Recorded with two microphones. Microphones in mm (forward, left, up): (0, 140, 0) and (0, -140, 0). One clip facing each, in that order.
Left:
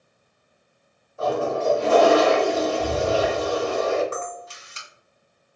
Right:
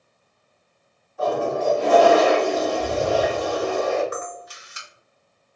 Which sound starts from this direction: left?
A toilet flushing, at 1.2 s.